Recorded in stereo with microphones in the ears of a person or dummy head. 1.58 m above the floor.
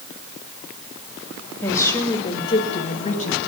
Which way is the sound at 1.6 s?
15° left (ahead or behind).